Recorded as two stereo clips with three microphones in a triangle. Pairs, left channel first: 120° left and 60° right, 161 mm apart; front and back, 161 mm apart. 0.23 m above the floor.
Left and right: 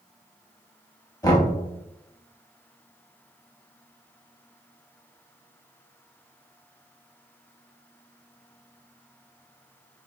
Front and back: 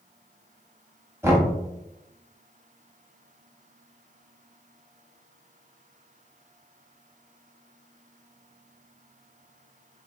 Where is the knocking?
135° left, 0.8 m.